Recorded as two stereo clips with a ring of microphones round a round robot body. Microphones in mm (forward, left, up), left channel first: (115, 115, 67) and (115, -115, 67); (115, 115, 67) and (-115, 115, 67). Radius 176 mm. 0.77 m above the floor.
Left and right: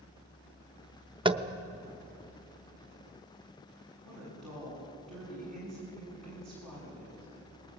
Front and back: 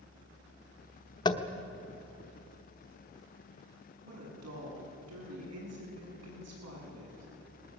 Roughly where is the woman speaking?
Behind.